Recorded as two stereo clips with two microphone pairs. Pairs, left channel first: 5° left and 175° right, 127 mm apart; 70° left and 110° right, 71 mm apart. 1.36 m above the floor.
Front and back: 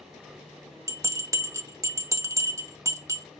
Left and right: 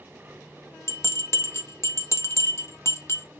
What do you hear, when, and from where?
0.9 s a bell: 120° left, 0.6 m